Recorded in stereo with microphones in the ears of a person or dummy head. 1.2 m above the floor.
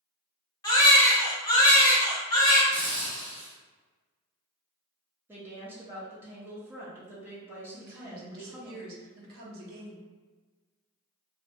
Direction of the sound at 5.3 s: 15° right (ahead or behind).